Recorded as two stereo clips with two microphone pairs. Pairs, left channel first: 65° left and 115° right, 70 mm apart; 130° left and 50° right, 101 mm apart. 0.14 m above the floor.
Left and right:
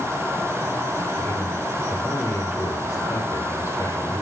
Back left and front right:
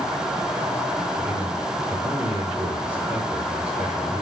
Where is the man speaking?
25° left, 6 m.